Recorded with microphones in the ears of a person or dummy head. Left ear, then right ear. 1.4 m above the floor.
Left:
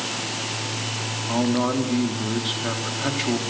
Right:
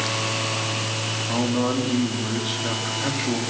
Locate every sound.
1.3 s a man speaking: 10° left (ahead or behind), 3.5 m